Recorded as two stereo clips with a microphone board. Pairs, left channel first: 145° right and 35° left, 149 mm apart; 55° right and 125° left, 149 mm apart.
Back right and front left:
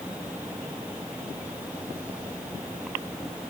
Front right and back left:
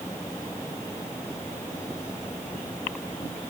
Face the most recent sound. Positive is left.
No sound to turn to.